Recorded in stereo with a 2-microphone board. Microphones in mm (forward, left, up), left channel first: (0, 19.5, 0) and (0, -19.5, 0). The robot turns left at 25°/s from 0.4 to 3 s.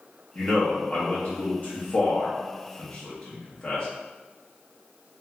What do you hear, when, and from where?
0.3 s a man speaking: 30° left (ahead or behind), 1.0 m; by 3.9 s 25° left (ahead or behind), 1.0 m